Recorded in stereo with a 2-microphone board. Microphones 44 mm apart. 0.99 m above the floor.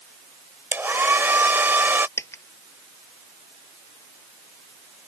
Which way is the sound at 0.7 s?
55° right (ahead or behind).